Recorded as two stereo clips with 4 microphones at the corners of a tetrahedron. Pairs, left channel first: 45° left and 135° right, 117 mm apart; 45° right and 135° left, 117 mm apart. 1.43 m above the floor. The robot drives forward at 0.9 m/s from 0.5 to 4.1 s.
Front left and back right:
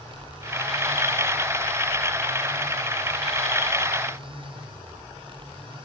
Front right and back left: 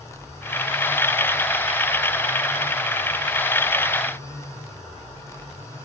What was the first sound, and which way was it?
Only background noise.